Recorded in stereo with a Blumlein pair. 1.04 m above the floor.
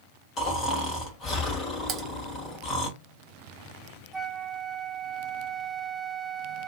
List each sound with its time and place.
0.4 s snoring: 30° left, 1.5 m
1.9 s typing on a keyboard: 35° right, 1.0 m
4.1 s a flute: 10° right, 0.6 m